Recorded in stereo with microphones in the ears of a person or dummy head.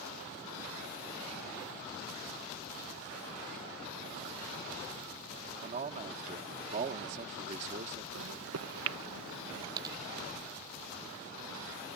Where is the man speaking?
45° right (ahead or behind).